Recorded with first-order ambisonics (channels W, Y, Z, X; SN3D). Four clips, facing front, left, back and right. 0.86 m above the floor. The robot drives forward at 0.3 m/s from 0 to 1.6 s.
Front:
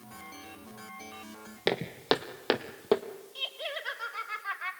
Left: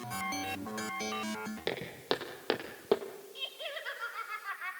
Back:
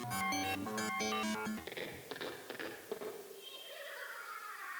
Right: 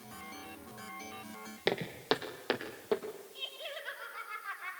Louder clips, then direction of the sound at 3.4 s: Left 4 dB, front 13 dB; 15° left.